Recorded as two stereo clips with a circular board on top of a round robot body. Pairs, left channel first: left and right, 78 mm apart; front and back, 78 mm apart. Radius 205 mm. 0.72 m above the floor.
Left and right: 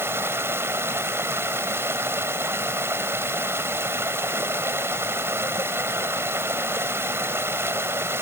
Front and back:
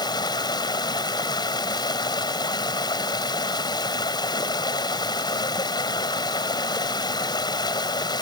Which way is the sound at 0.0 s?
30° right.